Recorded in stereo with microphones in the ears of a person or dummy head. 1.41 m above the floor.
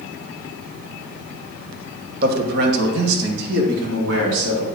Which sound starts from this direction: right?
A man speaking, at 2.2 s.